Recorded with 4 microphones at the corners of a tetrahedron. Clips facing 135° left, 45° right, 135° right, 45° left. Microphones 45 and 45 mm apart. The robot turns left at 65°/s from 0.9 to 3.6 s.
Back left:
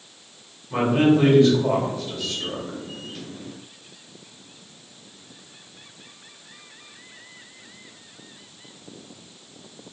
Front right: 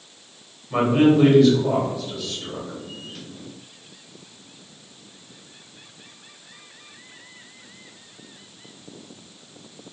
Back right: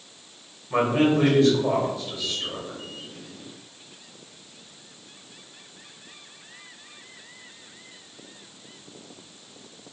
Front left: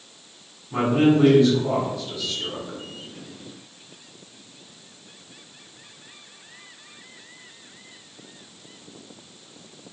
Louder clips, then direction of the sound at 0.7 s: Front right 2 dB, front left 2 dB; 135° right.